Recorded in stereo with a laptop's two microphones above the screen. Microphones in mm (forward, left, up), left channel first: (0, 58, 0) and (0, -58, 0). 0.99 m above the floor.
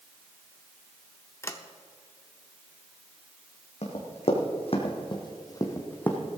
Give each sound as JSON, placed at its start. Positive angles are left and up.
{"t": 1.4, "sound": "a sliding door", "side_deg": 25, "distance_m": 0.7}
{"t": 3.8, "sound": "running footsteps", "side_deg": 70, "distance_m": 3.0}